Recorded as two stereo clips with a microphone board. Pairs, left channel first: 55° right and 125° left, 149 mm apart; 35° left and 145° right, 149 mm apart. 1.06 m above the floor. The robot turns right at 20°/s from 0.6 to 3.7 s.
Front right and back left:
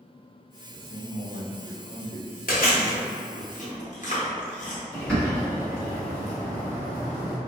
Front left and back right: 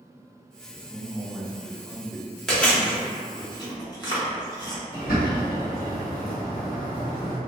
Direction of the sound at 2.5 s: 50° right.